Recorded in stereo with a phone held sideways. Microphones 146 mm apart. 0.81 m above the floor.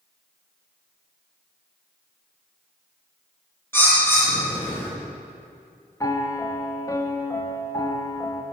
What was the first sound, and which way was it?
A bird, 15° left (ahead or behind).